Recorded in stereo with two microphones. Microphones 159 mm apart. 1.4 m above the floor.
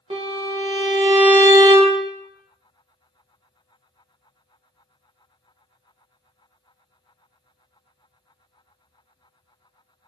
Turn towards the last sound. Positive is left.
turn(degrees=-35)  # may be behind; listen again after turning